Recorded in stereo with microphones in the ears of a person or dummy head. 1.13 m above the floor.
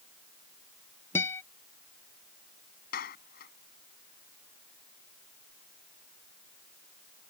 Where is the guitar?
15° left (ahead or behind).